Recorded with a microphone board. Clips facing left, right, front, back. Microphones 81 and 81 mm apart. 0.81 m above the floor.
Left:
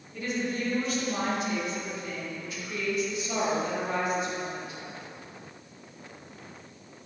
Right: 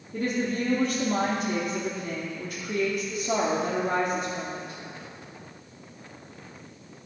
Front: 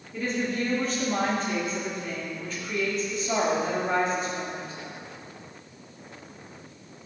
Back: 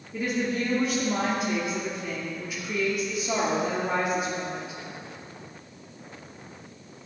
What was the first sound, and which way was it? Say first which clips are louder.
A woman speaking: right 4 dB, back 1 dB; 105° right.